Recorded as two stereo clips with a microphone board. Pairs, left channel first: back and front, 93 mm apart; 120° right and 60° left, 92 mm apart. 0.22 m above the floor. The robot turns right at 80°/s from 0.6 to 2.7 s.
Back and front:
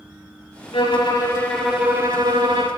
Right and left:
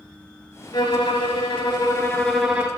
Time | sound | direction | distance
0.7 | a violin | 165° right | 0.5 m